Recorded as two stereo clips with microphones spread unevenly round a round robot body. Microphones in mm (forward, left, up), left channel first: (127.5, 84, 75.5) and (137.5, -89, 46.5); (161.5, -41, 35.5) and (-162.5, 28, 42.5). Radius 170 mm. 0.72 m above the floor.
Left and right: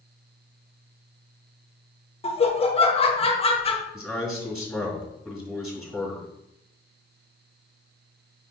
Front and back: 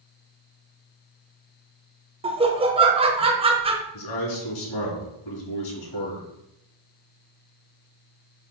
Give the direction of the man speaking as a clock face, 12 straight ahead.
12 o'clock.